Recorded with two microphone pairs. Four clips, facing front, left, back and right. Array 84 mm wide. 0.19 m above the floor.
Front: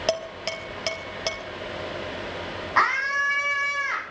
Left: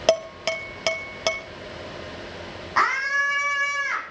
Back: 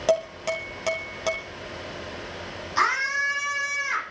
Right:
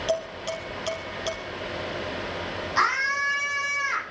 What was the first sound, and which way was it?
Dishes clattering, 90° left.